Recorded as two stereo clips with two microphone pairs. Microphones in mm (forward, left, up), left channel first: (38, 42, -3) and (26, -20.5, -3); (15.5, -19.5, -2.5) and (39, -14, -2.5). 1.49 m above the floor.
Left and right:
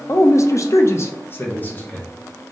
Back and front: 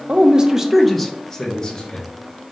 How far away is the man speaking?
About 0.6 m.